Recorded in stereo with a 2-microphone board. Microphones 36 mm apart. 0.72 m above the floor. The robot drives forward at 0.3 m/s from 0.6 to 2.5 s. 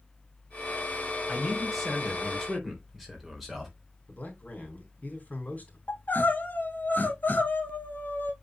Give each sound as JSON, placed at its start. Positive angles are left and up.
{"t": 1.3, "sound": "a man speaking", "side_deg": 0, "distance_m": 3.5}
{"t": 4.1, "sound": "a man speaking", "side_deg": 45, "distance_m": 3.0}
{"t": 5.9, "sound": "crying", "side_deg": 60, "distance_m": 2.0}